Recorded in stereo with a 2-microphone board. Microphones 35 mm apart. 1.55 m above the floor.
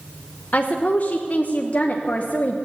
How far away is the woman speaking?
About 1.0 m.